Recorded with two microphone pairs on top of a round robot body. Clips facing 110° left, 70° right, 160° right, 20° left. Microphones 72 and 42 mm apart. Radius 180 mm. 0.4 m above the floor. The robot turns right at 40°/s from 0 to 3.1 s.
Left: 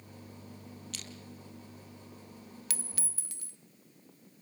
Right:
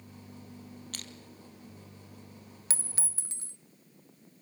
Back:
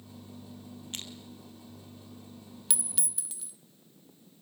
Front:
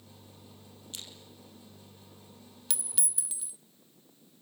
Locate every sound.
0.9 s crushing: 115° right, 2 m; by 1.1 s 110° right, 2 m
2.7 s a clink: 70° right, 0.7 m; by 3.6 s 55° right, 0.7 m